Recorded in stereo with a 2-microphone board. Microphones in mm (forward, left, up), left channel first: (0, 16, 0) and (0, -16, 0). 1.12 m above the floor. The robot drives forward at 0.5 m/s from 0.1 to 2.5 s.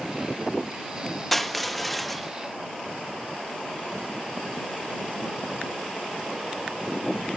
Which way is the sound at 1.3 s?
5° left (ahead or behind).